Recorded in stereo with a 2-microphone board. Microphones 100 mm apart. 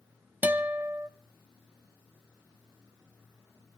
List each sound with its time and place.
0.4 s a guitar: 20° right (ahead or behind), 0.9 m